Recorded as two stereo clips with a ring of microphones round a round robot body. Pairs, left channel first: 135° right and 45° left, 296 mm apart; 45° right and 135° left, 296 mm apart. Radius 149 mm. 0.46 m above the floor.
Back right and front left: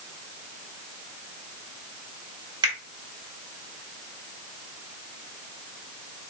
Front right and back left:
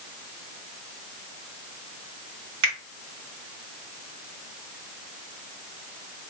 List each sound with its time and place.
2.6 s a finger snap: 120° left, 1.5 m